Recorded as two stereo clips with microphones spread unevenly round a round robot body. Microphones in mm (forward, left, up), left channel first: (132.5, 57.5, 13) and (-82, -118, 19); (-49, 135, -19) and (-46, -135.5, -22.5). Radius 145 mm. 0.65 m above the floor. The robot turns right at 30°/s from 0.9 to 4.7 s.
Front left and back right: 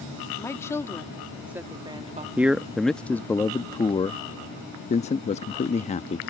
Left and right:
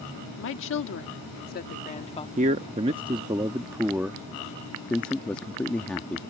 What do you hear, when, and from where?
0.4 s a woman speaking: 115° left; by 2.3 s 155° left
2.4 s a man speaking: 60° right; by 6.2 s 10° left